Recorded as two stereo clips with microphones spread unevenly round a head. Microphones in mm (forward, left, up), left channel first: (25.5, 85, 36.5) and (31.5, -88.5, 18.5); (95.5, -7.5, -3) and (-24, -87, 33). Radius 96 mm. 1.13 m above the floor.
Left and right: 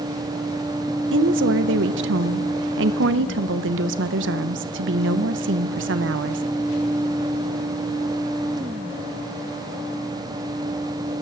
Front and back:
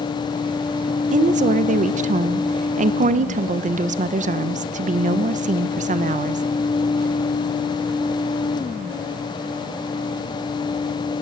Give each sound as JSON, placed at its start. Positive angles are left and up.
{"t": 1.1, "sound": "a woman speaking", "azimuth_deg": -105, "distance_m": 0.6}